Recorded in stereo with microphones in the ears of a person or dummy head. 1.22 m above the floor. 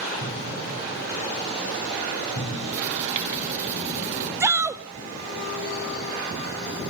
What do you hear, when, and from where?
0.2 s an explosion: 60° left (ahead or behind), 6.5 m
2.7 s writing: 40° right (ahead or behind), 1.8 m
4.4 s a shout: 15° right (ahead or behind), 0.5 m